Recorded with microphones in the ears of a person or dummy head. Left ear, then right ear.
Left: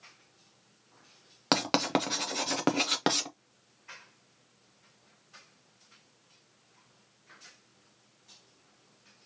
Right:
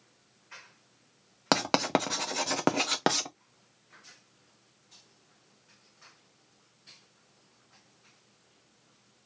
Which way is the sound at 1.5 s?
15° right (ahead or behind).